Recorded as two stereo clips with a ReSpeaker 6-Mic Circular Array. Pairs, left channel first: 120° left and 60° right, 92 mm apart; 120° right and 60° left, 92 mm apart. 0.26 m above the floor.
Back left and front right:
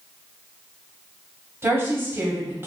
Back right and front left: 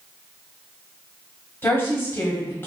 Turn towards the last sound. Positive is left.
turn(degrees=-90)